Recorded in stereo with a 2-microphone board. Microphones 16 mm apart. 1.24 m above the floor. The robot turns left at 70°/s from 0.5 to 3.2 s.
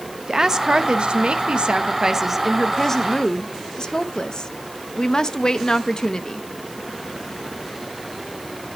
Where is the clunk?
No clunk in this recording.